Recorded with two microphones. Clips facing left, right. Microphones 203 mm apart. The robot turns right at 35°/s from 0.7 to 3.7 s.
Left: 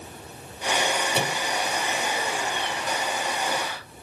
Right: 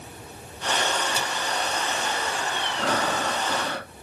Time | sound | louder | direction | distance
1.1 | a microwave | left 4 dB | 65° left (ahead or behind) | ?
2.8 | breathing | right 7 dB | 90° right | ?